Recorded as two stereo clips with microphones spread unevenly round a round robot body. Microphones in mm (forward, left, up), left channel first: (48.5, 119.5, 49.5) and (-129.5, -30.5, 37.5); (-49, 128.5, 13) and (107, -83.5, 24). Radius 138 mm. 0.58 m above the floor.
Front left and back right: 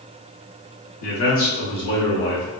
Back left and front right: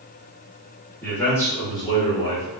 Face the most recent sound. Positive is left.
turn(degrees=70)